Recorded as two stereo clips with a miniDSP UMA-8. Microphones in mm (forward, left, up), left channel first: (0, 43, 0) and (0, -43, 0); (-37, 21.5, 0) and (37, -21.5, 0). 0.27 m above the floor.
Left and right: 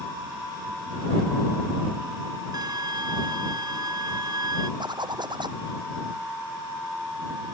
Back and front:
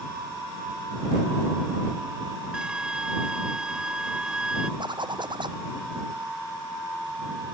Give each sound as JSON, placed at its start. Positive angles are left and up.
{"t": 2.5, "sound": "a violin", "azimuth_deg": -110}
{"t": 4.8, "sound": "a zipper", "azimuth_deg": -60}